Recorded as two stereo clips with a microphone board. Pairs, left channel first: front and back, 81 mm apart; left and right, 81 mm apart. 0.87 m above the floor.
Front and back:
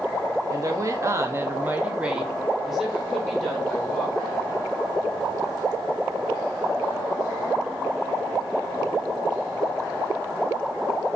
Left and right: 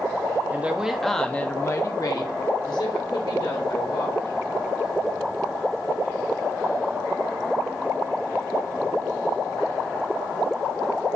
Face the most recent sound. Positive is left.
turn(degrees=80)